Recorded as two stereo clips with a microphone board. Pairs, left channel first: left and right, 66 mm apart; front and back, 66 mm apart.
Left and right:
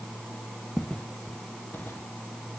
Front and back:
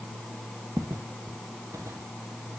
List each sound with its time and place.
0.8 s footsteps: 160° left, 1.6 m; by 2.1 s 145° left, 2 m